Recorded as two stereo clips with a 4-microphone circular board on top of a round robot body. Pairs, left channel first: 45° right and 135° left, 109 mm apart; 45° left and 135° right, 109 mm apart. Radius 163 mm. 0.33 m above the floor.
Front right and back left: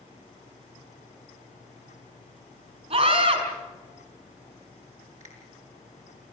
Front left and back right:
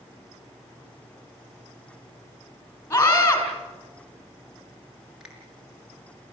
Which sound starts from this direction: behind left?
A finger snap, at 5.2 s.